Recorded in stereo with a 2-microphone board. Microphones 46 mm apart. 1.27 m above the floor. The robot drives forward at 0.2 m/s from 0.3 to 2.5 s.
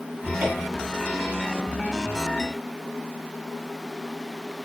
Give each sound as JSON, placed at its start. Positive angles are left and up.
{"t": 0.2, "sound": "a cupboard door", "side_deg": -45, "distance_m": 4.5}